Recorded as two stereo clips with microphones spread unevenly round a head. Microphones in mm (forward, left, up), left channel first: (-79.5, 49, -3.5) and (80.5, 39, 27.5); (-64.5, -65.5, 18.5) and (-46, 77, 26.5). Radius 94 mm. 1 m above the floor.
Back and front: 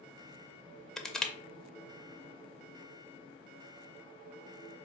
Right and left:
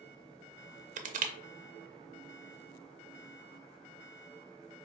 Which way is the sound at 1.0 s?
100° left.